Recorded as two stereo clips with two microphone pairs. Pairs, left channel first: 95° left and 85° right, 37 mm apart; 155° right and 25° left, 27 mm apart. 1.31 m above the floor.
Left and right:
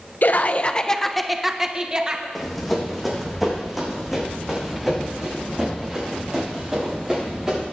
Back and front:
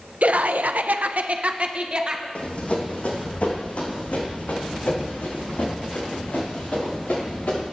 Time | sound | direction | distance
0.2 | laughter | 55° left | 0.7 m
2.4 | running footsteps | straight behind | 3.5 m